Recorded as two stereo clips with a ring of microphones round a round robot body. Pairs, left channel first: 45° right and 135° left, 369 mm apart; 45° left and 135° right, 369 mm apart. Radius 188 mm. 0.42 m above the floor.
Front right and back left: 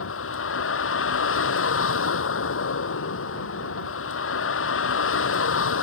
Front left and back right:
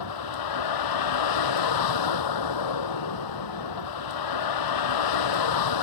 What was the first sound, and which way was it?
A vehicle, 10° left.